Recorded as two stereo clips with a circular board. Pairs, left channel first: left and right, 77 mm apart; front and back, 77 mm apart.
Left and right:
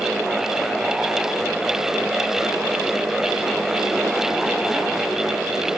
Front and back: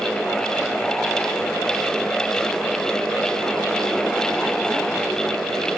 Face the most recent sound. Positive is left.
No sound to turn to.